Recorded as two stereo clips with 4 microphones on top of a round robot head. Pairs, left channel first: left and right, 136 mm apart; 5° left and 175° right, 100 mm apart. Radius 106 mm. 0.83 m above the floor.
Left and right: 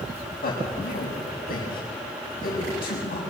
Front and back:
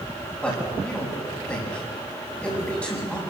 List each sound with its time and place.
0.4 s a man speaking: 80° left, 6 m